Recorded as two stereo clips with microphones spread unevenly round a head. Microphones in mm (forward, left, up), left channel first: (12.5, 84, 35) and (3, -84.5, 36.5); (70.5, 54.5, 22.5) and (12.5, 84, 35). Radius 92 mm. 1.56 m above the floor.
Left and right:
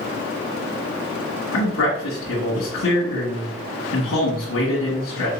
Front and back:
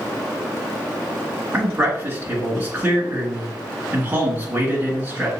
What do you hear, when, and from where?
1.5 s a man speaking: 100° left, 1.9 m